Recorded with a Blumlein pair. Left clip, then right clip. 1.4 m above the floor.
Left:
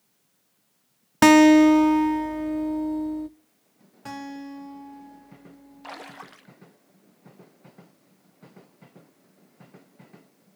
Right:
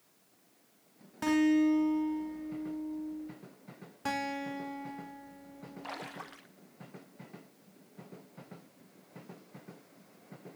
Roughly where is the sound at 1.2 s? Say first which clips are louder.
Left 14 dB; ahead left.